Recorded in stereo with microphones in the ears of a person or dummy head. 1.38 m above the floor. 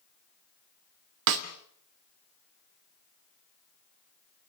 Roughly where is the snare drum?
Right.